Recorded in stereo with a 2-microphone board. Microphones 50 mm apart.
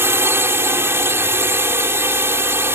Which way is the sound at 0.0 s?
60° right (ahead or behind).